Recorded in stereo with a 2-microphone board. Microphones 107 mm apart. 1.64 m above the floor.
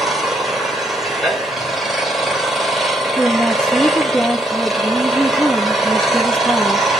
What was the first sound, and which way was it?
An engine running, centre (ahead or behind).